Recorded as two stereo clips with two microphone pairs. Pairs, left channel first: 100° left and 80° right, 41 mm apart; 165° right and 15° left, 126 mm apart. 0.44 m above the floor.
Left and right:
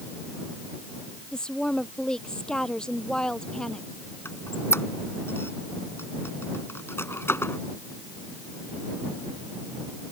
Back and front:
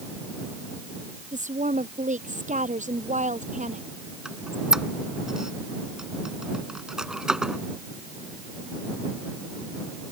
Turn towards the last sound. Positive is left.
turn(degrees=100)